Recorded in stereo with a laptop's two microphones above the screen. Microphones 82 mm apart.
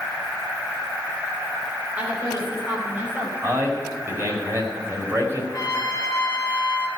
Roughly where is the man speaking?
Right.